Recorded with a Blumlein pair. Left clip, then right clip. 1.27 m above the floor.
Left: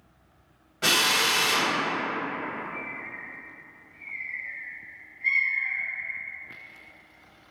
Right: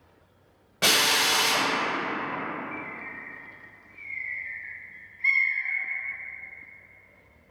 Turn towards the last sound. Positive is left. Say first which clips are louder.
# left 1 dB
turn(degrees=-35)